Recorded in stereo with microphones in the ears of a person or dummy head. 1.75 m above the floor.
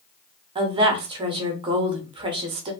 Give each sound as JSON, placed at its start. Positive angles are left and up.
{"t": 0.6, "sound": "a woman speaking", "side_deg": -25, "distance_m": 0.6}